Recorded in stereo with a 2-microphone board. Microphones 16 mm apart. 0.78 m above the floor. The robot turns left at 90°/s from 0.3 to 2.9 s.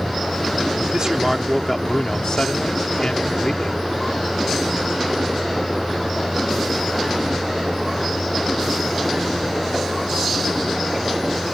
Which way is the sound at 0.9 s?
120° right.